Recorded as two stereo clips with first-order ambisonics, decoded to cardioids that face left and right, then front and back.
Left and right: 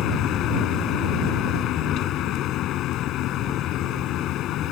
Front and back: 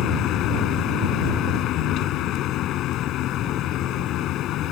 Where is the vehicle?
45° left.